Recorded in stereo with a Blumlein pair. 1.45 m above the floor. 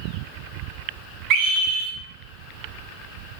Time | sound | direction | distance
1.3 | a scream | 40° right | 0.7 m